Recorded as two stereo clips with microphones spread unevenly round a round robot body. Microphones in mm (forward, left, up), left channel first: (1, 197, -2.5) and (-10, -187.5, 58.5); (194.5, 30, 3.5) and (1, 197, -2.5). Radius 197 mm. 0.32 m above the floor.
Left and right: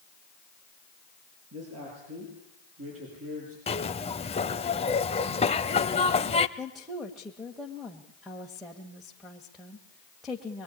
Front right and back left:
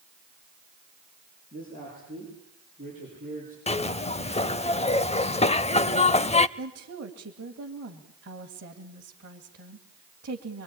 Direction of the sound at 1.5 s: 145° right.